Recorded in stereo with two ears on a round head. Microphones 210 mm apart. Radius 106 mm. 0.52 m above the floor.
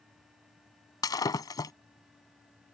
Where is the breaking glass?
15° left (ahead or behind).